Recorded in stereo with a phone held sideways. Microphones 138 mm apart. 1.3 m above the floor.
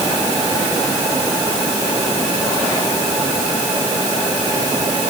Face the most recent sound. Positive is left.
No sound to turn to.